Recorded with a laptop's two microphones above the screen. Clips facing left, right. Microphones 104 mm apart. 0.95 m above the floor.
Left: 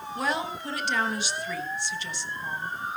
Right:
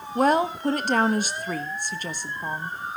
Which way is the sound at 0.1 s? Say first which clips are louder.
Right 9 dB; 45° right (ahead or behind).